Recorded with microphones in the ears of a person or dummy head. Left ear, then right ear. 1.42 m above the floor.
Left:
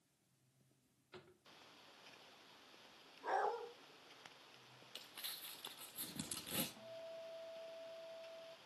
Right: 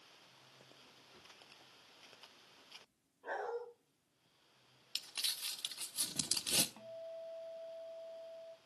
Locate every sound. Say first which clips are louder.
1.1 s a drawer: left 1 dB; 45° left (ahead or behind), 0.6 m
3.2 s a dog barking: left 2 dB; 65° left (ahead or behind), 3 m
5.0 s crumpling: right 11 dB; 25° right (ahead or behind), 0.8 m
6.8 s a guitar: right 4 dB; 65° right (ahead or behind), 0.8 m